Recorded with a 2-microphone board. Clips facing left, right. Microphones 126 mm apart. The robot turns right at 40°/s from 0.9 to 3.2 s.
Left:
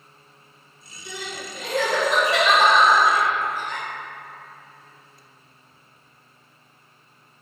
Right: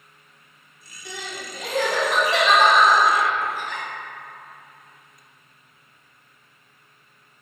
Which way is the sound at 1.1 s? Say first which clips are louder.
Left 1 dB; 50° right (ahead or behind).